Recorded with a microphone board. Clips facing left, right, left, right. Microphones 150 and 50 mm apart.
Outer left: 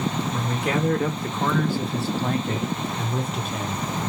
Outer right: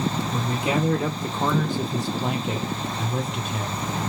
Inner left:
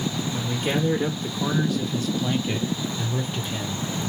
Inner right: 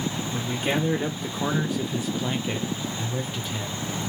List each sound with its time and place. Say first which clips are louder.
0.3 s a man speaking: outer right 1 dB, inner right 1 dB; 20° right (ahead or behind), 1.1 m; by 3.9 s 5° left (ahead or behind), 1.1 m